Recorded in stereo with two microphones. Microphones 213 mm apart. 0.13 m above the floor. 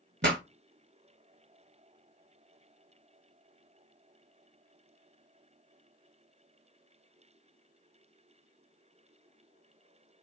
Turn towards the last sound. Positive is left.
turn(degrees=-55)  # may be behind; listen again after turning